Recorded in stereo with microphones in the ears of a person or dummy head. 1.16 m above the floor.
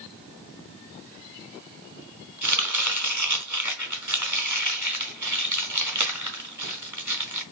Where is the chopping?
15° right (ahead or behind), 1.4 m.